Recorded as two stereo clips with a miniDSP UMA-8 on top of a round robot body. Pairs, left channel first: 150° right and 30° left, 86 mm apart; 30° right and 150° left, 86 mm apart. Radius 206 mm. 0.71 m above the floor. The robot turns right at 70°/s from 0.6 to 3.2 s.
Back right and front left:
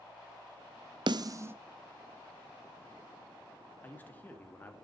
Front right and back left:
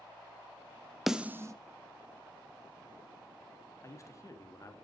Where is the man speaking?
85° right, 2 m.